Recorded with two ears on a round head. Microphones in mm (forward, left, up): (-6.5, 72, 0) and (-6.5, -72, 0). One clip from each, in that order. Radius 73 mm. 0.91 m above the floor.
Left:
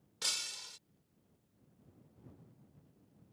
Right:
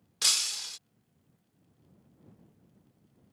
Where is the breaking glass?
50° right (ahead or behind).